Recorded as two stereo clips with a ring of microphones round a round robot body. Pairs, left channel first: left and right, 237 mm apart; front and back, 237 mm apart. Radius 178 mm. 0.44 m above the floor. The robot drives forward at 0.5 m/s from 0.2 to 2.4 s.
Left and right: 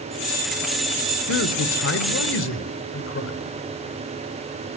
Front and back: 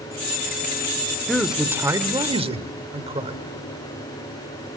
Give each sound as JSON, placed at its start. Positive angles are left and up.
{"t": 1.3, "sound": "a man speaking", "azimuth_deg": 85, "distance_m": 1.3}